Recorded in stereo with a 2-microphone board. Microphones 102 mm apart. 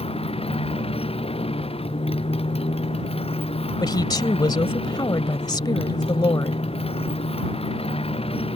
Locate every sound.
0.0 s a motorcycle: 65° left (ahead or behind)
3.8 s a woman speaking: 40° left (ahead or behind)